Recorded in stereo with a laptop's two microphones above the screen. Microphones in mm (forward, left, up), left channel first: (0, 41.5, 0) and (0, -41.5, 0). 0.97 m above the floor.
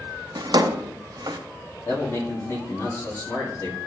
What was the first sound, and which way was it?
A drawer, 60° right (ahead or behind).